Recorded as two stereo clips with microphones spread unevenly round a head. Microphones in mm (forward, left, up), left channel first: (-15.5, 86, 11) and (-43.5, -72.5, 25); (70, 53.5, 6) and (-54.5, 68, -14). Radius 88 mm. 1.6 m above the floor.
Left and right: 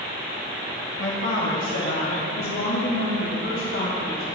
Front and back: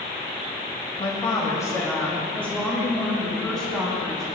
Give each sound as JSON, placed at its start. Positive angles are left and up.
{"t": 1.0, "sound": "a woman speaking", "azimuth_deg": 45, "distance_m": 2.0}